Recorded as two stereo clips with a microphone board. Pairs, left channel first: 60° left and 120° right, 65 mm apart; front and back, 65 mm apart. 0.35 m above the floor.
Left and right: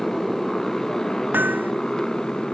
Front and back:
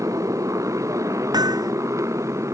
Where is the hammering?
175° left.